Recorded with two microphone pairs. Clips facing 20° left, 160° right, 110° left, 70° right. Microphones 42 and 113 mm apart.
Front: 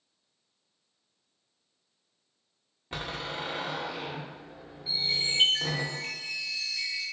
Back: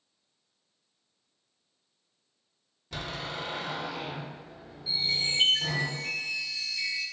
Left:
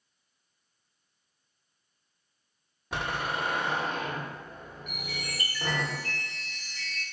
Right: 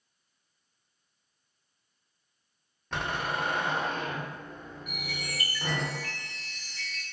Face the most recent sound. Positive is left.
turn(degrees=10)